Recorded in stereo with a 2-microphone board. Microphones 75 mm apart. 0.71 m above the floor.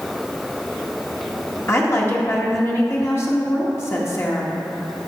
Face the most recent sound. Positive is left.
turn(degrees=35)  # may be behind; listen again after turning